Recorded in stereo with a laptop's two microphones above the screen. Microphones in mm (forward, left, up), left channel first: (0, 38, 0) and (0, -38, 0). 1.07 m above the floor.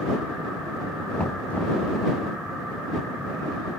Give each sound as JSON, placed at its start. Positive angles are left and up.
{"t": 1.2, "sound": "knocking", "side_deg": 20}